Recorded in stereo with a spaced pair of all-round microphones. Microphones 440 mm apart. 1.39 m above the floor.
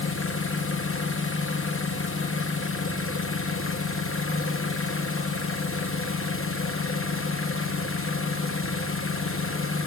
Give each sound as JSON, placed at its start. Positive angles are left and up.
{"t": 0.0, "sound": "an engine running", "side_deg": 30, "distance_m": 0.8}